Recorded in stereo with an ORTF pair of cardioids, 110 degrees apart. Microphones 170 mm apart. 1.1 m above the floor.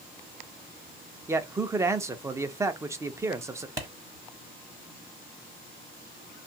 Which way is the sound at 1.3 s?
15° right.